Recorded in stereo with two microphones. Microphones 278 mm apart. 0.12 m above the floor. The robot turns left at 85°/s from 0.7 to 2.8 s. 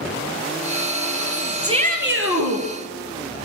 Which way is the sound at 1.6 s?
15° right.